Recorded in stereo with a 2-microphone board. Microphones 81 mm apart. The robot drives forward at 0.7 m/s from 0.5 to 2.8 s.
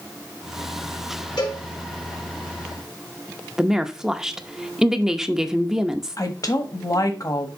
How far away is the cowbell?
About 3 m.